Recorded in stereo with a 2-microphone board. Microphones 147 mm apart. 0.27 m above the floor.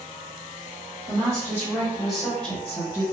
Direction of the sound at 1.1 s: 30° right (ahead or behind).